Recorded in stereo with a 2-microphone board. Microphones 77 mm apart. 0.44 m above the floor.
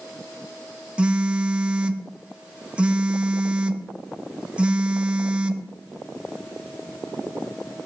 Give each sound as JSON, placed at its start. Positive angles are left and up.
{"t": 1.0, "sound": "a phone buzzing", "side_deg": -15, "distance_m": 0.7}